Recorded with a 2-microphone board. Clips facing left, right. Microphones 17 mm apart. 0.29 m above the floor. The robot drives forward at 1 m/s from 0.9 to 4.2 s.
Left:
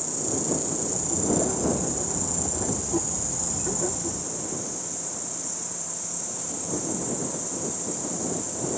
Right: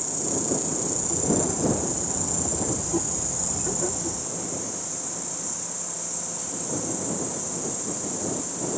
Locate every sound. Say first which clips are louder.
0.0 s an insect: even; 5° right (ahead or behind), 4 m; by 8.8 s centre (ahead or behind), 7 m